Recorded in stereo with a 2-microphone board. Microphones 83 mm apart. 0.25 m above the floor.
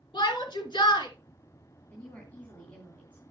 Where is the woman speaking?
20° left (ahead or behind), 2.5 m.